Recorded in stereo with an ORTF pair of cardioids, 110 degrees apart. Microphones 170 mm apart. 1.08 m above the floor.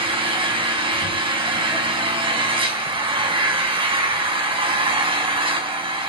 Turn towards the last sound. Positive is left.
turn(degrees=-30)